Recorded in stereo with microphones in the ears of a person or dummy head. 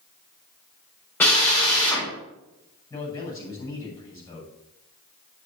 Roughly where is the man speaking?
Left.